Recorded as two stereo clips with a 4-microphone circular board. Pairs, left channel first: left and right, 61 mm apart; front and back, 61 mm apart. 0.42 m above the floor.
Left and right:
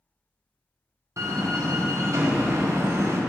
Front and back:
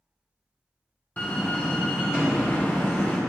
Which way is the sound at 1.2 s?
55° right.